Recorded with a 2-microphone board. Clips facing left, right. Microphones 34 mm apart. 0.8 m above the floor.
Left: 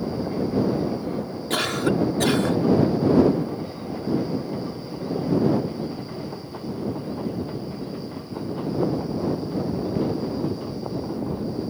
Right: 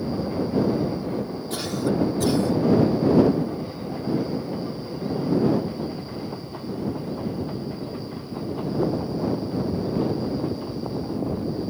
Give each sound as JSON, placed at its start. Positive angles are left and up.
{"t": 1.5, "sound": "a cough", "side_deg": 70}